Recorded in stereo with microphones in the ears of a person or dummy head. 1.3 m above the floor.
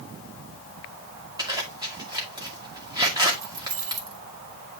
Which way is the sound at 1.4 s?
20° right (ahead or behind).